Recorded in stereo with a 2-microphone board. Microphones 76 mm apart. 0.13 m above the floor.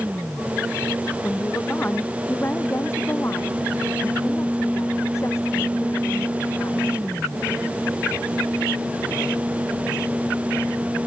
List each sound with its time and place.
1.2 s a woman speaking: 20° left (ahead or behind); by 7.0 s 45° left (ahead or behind)